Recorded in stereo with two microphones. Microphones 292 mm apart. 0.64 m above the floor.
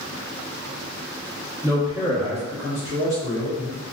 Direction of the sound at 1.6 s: 10° right (ahead or behind).